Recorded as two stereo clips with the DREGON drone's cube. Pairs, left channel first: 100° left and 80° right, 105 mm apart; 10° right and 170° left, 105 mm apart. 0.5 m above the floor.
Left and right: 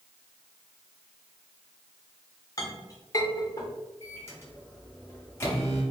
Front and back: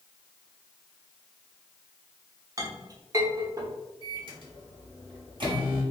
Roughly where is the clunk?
I don't hear a clunk.